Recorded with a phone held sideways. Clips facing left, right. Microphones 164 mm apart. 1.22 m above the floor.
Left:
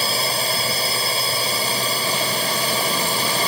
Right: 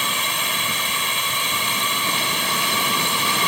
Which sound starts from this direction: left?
A drone, at 0.0 s.